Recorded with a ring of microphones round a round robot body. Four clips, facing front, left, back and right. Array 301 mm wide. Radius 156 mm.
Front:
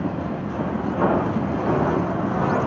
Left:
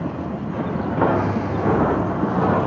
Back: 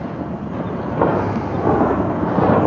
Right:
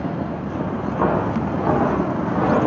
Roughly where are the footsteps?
Behind left.